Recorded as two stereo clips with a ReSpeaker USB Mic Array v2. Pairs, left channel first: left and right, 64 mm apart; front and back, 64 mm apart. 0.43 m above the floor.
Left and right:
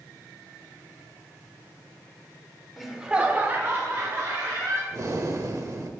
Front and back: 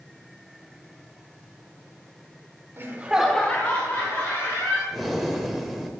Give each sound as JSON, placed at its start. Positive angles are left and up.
{"t": 2.8, "sound": "laughter", "azimuth_deg": 180, "distance_m": 1.1}
{"t": 4.9, "sound": "breathing", "azimuth_deg": -90, "distance_m": 0.9}